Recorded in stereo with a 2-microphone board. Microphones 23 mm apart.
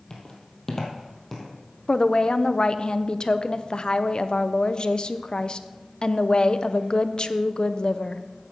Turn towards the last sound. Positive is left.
turn(degrees=45)  # may be behind; listen again after turning